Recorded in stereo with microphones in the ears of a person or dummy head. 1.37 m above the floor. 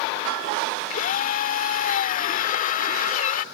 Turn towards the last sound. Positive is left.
turn(degrees=45)  # may be behind; listen again after turning